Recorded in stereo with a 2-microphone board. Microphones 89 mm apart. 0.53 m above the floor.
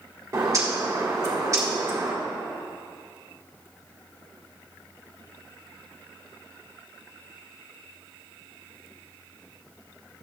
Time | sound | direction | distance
0.3 | a bird | 40° right (ahead or behind) | 1.6 m